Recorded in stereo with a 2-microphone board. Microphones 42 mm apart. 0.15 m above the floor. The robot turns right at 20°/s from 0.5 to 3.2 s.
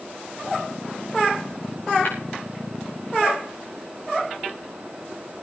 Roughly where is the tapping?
Left.